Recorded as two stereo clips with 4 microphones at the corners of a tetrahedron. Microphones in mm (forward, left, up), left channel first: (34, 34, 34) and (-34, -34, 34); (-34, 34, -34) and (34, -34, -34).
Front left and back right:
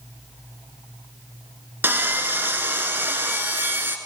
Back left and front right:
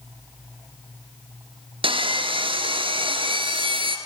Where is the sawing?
70° right, 1.9 m.